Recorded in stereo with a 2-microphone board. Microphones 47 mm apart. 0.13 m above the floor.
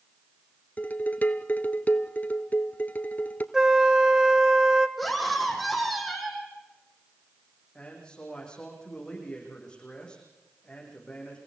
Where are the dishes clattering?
40° left (ahead or behind), 1.2 m.